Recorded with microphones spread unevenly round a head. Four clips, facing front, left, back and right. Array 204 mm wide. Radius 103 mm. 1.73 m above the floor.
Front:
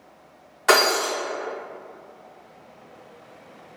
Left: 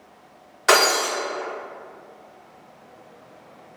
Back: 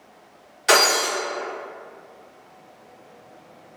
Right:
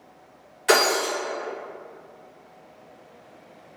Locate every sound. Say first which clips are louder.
0.7 s breaking glass: left 2 dB, even; 50° left, 1.5 m